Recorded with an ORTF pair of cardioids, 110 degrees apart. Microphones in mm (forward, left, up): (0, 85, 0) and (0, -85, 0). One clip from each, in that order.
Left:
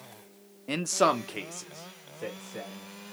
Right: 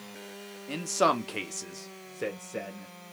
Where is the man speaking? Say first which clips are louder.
Left 1 dB; 30° left, 0.5 m; by 2.9 s 50° right, 1.3 m.